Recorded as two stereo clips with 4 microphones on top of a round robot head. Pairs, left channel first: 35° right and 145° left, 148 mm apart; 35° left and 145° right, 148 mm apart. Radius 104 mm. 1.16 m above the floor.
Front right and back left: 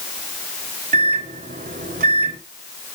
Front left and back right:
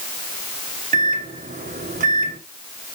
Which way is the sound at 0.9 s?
Straight behind.